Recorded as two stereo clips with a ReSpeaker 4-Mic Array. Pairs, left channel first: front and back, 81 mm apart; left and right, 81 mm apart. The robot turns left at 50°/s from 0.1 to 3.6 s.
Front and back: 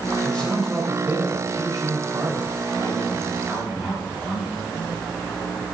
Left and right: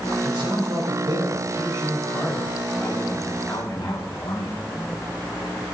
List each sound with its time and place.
0.2 s a man speaking: 70° right, 5 m; by 4.5 s 120° left, 5 m